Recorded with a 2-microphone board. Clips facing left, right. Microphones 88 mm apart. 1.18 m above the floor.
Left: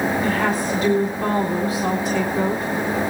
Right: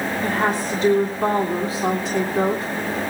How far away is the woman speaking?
About 3 m.